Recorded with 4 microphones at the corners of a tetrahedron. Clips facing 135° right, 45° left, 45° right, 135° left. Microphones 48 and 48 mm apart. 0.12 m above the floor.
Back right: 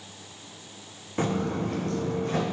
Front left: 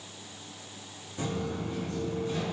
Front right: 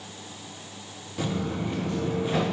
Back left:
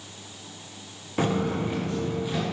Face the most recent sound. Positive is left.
turn(degrees=-100)